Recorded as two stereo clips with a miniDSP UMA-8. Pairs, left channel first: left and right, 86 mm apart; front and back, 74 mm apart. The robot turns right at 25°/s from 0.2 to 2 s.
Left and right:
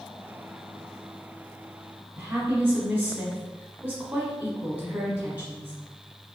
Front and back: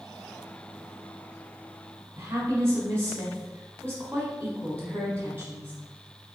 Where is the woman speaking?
150° right, 1.2 m.